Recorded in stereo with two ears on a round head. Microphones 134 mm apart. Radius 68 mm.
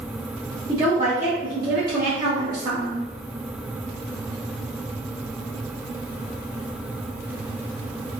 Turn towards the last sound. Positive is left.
turn(degrees=-25)  # may be behind; listen again after turning